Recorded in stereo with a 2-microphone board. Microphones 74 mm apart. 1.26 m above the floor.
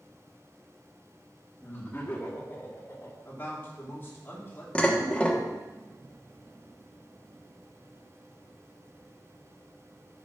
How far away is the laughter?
About 3 m.